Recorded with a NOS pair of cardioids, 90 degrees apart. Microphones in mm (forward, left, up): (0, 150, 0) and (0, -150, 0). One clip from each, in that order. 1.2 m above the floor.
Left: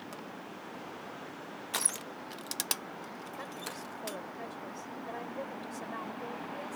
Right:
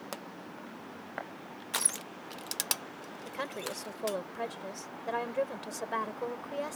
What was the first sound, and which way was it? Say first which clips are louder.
A pop: right 6 dB; 60° right.